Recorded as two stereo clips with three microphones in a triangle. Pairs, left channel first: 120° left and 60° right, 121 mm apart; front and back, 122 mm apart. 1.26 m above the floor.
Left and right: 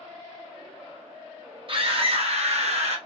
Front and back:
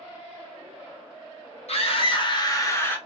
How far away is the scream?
About 1.1 m.